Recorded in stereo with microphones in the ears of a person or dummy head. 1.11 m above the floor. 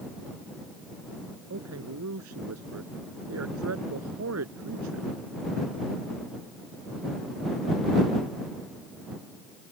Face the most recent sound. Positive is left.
turn(degrees=-75)  # may be behind; listen again after turning